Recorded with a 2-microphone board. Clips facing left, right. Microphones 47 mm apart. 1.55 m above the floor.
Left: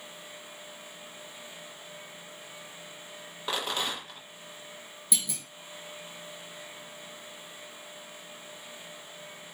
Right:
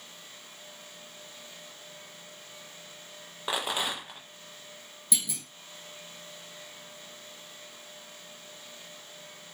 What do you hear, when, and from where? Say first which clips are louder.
3.5 s a rattle: right 1 dB; 15° right (ahead or behind), 0.8 m
5.1 s a clunk: even; centre (ahead or behind), 0.8 m